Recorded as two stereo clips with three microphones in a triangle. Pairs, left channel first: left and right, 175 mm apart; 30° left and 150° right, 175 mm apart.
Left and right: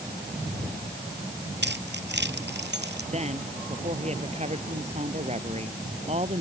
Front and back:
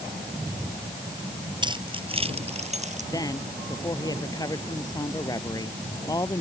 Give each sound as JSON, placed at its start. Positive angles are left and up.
{"t": 1.6, "sound": "keys jangling", "azimuth_deg": -85}
{"t": 3.1, "sound": "a woman speaking", "azimuth_deg": -40}